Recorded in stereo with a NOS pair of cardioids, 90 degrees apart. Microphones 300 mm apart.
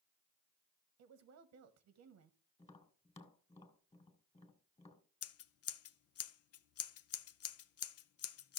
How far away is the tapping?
About 2.5 m.